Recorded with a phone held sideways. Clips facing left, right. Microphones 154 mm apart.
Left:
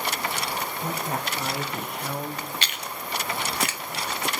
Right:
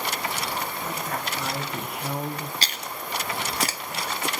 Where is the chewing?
35° right (ahead or behind), 0.5 m.